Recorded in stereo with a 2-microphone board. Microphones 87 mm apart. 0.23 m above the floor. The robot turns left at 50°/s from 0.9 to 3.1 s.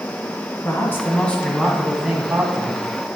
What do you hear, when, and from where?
0.6 s a man speaking: 40° left, 1.7 m; by 2.9 s 60° right, 1.7 m